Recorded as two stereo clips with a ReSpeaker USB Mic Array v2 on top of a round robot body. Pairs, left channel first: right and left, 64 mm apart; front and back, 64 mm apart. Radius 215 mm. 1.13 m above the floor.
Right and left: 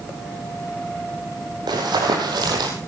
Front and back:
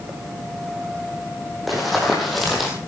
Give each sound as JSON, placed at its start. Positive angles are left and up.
{"t": 1.7, "sound": "running footsteps", "azimuth_deg": 90, "distance_m": 3.5}